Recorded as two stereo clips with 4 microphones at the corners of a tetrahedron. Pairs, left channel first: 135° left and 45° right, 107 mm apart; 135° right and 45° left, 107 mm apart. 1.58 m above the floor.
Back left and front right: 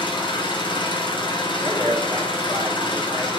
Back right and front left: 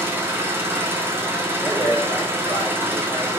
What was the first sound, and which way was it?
An engine running, 105° left.